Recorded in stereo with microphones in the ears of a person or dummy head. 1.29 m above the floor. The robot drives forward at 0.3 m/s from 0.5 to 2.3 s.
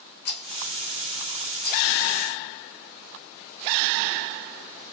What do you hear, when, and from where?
0.2 s a rattle: 55° left (ahead or behind), 1.7 m; by 1.9 s 45° left (ahead or behind), 1.9 m